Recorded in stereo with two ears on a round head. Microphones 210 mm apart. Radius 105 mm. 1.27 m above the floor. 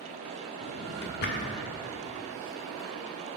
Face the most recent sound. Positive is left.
turn(degrees=45)  # may be behind; listen again after turning